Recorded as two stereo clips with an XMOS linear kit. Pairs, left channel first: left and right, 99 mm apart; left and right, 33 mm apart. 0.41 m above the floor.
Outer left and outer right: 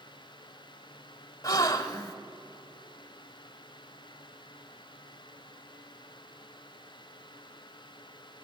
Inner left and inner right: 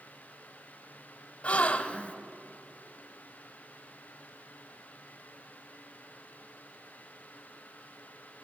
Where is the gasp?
35° left (ahead or behind), 1.2 m.